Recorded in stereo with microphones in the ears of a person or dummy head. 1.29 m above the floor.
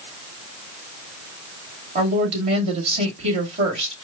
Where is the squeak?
No squeak in this recording.